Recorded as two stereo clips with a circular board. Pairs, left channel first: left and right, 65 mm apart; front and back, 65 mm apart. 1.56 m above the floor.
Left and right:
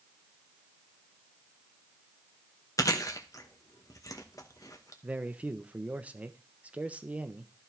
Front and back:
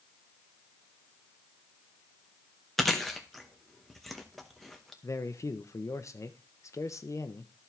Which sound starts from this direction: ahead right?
A man speaking, at 5.0 s.